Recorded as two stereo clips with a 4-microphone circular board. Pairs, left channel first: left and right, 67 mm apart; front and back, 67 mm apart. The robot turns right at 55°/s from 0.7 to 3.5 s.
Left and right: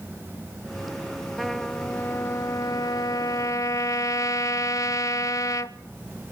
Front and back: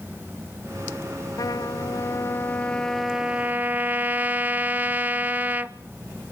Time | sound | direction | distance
1.4 | a trumpet | straight ahead | 0.6 m